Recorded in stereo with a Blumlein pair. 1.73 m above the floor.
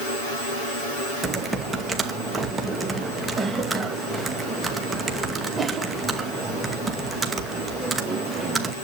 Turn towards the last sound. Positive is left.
turn(degrees=-10)